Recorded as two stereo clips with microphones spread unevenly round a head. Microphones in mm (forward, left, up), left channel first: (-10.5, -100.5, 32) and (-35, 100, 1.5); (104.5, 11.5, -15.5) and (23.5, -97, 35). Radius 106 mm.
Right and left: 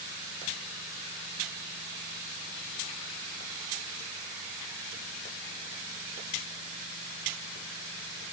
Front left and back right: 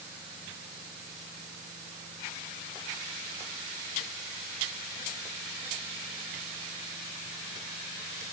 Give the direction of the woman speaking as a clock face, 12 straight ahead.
I don't hear a woman speaking.